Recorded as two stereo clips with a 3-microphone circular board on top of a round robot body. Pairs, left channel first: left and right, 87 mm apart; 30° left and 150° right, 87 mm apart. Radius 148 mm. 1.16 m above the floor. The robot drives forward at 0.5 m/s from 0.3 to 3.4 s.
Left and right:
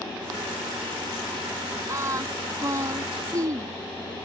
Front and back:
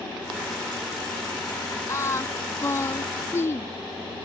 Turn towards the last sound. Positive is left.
turn(degrees=-35)